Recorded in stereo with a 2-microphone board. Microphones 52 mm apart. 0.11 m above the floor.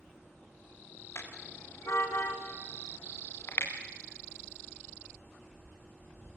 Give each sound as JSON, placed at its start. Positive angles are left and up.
{"t": 1.1, "sound": "a car horn", "side_deg": 50, "distance_m": 7.0}